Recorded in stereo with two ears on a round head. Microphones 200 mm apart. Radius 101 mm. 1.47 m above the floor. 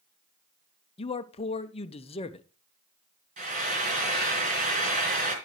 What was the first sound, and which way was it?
A man speaking, 25° left (ahead or behind).